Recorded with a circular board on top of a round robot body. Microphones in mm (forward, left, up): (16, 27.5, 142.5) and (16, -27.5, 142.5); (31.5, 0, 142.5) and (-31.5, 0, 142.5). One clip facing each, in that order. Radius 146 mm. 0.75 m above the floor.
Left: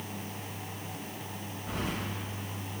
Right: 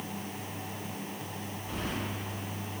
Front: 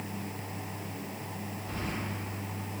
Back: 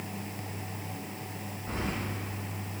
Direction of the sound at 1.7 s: 115° left.